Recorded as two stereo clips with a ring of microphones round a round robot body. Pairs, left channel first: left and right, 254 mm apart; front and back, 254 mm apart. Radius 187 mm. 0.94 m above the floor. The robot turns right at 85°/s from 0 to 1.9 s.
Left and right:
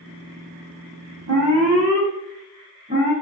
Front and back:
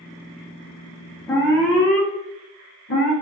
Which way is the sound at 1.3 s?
80° right.